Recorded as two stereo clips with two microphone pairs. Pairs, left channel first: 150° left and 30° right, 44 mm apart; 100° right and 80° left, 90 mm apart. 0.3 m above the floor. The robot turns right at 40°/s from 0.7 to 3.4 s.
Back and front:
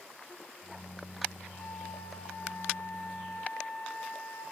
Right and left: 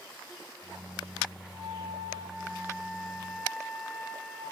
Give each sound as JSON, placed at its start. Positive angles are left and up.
{"t": 1.5, "sound": "a flute", "azimuth_deg": 85, "distance_m": 4.5}